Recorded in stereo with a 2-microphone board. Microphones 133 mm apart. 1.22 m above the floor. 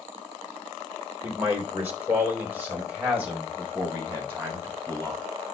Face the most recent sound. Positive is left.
turn(degrees=-15)  # may be behind; listen again after turning